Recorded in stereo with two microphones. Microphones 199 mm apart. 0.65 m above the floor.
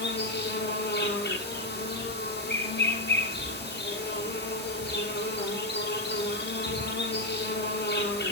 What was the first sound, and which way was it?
An insect, 65° left (ahead or behind).